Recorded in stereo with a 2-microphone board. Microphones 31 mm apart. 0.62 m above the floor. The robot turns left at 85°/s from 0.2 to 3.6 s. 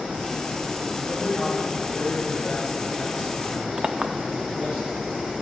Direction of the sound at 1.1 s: 170° left.